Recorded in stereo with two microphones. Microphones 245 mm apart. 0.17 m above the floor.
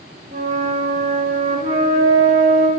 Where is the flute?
35° right (ahead or behind), 0.8 m.